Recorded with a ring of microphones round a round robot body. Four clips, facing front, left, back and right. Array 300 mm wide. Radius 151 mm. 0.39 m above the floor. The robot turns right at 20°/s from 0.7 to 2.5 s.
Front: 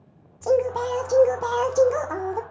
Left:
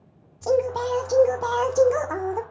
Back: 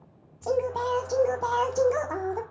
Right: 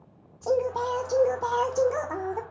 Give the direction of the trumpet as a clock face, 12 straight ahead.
No trumpet in this recording.